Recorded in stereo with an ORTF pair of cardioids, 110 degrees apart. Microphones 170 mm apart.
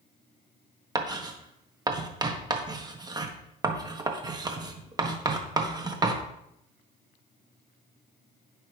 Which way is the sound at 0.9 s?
25° right.